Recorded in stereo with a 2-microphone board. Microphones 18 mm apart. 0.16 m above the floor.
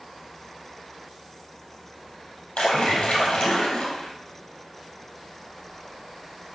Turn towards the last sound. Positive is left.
turn(degrees=75)  # may be behind; listen again after turning